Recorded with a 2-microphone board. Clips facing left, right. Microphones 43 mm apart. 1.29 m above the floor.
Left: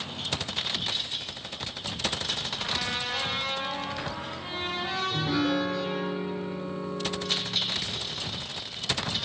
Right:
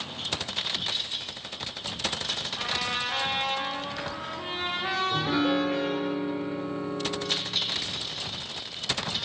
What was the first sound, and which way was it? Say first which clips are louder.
A trumpet: right 3 dB; 40° right (ahead or behind).